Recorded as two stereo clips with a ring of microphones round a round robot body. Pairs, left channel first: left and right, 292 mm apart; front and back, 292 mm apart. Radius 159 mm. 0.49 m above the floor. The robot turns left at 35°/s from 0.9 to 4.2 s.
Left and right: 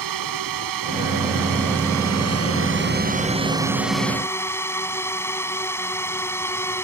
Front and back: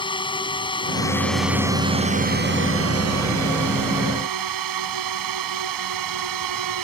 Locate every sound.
0.0 s a drone: 75° right; by 6.8 s 170° left